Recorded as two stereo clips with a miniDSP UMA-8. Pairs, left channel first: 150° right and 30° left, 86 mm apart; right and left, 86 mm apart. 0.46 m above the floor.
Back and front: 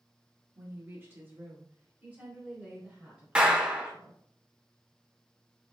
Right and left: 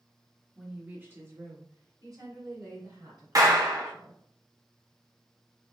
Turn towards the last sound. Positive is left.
turn(degrees=105)